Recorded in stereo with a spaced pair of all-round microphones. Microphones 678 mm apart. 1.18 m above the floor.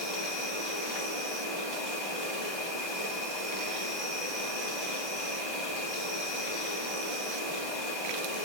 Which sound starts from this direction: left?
An insect, at 0.0 s.